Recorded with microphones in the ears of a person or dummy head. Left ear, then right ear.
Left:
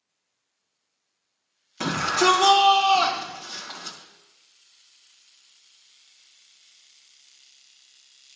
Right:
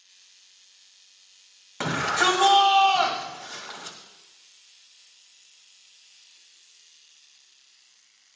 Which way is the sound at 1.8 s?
35° right (ahead or behind).